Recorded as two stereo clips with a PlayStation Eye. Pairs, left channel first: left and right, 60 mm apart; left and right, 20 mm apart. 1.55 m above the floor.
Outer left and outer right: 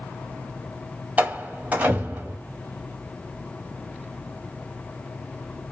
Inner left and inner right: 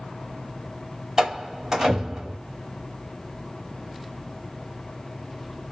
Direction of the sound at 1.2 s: 25° right (ahead or behind).